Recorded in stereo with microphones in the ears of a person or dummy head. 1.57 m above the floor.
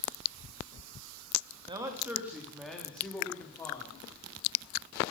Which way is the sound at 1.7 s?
25° right (ahead or behind).